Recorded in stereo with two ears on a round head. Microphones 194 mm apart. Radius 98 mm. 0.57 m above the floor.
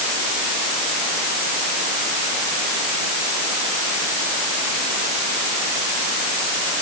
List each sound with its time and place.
Only background noise.